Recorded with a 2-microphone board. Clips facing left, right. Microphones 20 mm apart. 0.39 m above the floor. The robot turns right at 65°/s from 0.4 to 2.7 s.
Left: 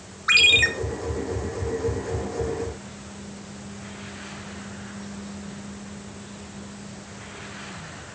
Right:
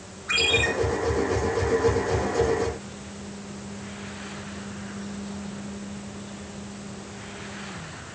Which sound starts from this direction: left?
A ringtone, at 0.3 s.